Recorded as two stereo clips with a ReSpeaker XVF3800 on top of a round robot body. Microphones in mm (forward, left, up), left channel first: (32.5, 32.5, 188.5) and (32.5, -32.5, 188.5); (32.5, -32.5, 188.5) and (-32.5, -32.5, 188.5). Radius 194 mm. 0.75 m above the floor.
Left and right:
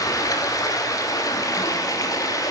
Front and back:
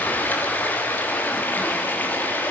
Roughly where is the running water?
Ahead left.